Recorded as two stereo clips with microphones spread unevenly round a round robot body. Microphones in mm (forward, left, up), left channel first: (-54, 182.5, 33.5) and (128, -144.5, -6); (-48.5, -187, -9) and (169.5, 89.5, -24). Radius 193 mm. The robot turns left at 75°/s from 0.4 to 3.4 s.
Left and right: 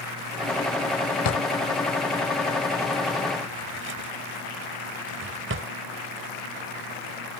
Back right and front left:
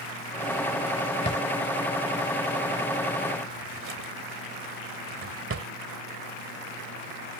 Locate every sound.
1.2 s a drawer: 160° left; by 5.7 s straight ahead